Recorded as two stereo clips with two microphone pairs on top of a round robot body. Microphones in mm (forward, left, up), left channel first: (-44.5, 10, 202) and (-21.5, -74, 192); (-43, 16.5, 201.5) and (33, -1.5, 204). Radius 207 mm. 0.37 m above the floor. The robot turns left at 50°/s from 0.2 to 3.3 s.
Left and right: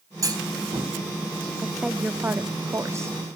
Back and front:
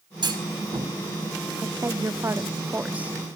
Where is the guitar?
I don't hear a guitar.